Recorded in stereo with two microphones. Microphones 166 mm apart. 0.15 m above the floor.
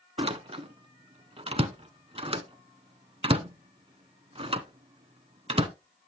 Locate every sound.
0.2 s a door slam: 35° right (ahead or behind), 0.8 m